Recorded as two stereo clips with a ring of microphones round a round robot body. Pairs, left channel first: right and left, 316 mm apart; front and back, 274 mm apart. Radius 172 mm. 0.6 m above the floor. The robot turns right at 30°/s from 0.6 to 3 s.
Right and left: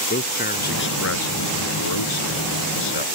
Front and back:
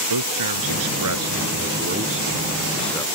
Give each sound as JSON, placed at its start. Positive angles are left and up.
{"t": 0.1, "sound": "a man speaking", "azimuth_deg": -155}